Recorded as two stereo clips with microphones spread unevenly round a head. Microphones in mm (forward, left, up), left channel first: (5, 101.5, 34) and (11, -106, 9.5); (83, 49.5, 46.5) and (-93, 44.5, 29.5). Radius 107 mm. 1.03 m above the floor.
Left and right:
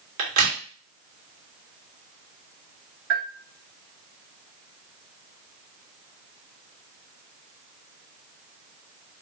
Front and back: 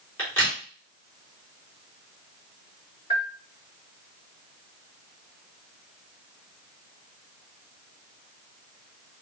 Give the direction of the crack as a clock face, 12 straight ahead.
3 o'clock.